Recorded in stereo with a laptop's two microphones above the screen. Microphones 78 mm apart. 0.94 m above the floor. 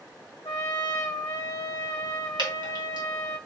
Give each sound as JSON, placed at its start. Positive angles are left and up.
{"t": 0.5, "sound": "a trumpet", "side_deg": 55, "distance_m": 0.8}
{"t": 2.4, "sound": "dripping", "side_deg": -80, "distance_m": 2.5}